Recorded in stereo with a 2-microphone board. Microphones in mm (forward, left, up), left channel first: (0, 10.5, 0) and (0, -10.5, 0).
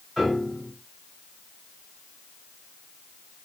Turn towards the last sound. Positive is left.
turn(degrees=-10)  # may be behind; listen again after turning